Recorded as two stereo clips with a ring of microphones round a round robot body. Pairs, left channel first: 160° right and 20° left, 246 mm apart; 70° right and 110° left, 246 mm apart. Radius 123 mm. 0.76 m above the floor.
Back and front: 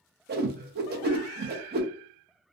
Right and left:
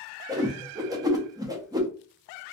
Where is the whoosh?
45° left, 0.6 m.